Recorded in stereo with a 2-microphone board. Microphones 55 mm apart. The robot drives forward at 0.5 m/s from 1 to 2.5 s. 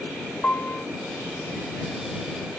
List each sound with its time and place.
0.4 s a piano: 30° left (ahead or behind), 0.9 m